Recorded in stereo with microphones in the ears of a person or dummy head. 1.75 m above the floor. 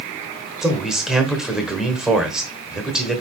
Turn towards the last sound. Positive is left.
turn(degrees=0)  # may be behind; listen again after turning